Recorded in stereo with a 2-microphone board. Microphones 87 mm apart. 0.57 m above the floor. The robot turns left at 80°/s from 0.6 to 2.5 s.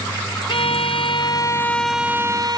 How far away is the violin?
About 0.5 m.